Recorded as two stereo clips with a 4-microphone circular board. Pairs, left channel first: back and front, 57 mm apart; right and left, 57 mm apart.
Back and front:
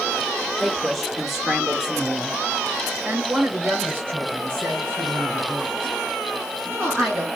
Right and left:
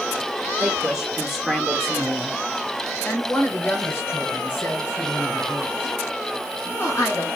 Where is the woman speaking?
120° left, 1.2 m; by 7.3 s 40° right, 3.5 m.